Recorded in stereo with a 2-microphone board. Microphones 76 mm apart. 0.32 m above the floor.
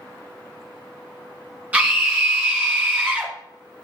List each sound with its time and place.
1.7 s a scream: 20° right (ahead or behind), 3.5 m